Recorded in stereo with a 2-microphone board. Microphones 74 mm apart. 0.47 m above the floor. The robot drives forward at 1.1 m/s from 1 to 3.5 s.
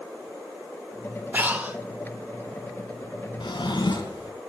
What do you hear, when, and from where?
1.3 s breathing: 25° right (ahead or behind), 1.3 m; by 1.8 s 20° right (ahead or behind), 1.6 m
3.4 s a drawer: 80° left, 3 m